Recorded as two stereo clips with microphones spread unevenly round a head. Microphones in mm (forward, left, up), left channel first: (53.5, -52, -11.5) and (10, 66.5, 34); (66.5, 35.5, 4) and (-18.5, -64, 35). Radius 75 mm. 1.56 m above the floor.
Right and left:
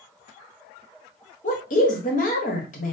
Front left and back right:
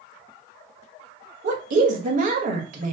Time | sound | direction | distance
1.4 | a woman speaking | 100° right | 1.5 m